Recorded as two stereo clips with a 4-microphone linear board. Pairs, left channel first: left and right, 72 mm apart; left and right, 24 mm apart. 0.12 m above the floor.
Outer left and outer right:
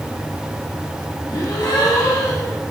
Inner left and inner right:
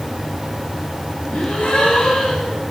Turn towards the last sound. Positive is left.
turn(degrees=65)  # may be behind; listen again after turning